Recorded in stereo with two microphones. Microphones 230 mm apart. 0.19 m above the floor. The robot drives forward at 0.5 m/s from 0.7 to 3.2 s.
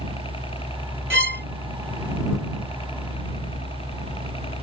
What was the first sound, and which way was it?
A helicopter, 25° left (ahead or behind).